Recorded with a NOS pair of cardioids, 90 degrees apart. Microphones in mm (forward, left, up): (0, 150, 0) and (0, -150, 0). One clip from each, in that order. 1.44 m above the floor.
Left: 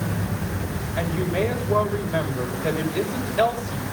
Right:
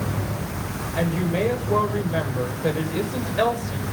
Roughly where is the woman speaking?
Ahead.